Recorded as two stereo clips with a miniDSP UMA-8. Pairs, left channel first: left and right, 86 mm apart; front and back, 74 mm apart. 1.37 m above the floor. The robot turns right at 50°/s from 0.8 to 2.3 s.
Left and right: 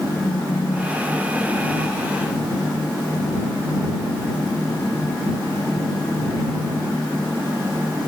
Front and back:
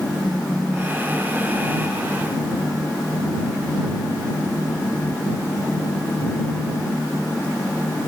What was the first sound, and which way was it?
A phone buzzing, 90° left.